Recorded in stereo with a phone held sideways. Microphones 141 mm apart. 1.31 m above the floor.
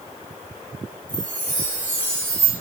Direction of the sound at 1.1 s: 15° left (ahead or behind).